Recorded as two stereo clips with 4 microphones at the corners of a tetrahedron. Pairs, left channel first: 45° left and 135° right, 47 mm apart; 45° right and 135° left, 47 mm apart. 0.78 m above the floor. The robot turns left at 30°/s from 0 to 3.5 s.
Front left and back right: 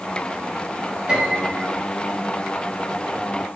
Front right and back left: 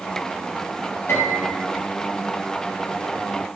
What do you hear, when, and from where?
1.1 s a piano: 65° right, 4.5 m; by 1.6 s 80° right, 4.5 m